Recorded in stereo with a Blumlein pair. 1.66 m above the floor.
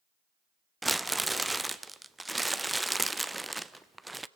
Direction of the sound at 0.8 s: 5° right.